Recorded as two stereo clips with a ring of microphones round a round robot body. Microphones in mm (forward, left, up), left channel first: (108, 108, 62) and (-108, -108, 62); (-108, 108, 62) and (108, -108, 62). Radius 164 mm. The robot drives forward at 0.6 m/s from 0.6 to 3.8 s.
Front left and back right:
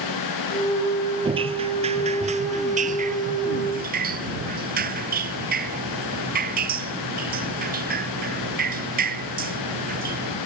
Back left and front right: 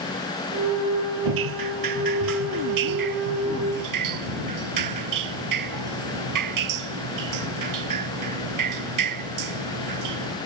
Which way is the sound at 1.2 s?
60° right.